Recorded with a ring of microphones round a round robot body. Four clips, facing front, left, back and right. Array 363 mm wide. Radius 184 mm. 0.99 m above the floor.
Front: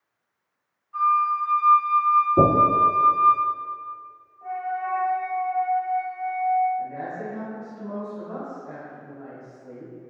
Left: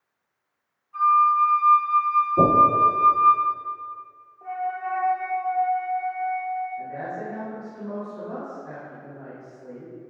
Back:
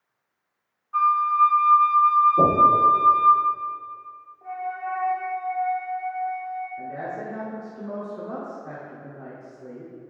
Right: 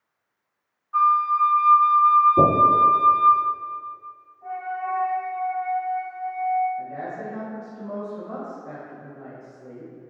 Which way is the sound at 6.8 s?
165° left.